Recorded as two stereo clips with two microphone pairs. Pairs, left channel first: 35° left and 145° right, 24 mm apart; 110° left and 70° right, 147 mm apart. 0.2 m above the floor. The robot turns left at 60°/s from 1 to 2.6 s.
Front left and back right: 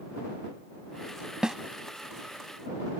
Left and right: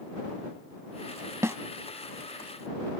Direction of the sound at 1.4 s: 125° right.